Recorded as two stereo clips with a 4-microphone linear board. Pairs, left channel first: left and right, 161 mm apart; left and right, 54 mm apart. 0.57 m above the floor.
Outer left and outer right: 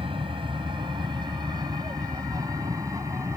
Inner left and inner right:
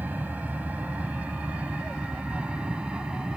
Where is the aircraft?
35° right (ahead or behind); by 3.4 s 20° right (ahead or behind).